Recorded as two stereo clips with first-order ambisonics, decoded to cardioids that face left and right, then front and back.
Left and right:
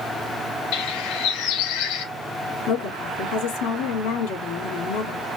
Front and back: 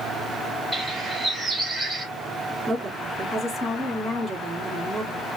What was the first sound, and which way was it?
A bird, 105° left.